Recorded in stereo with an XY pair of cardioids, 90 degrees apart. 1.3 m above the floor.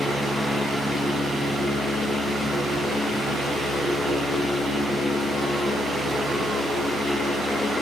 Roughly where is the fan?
Ahead right.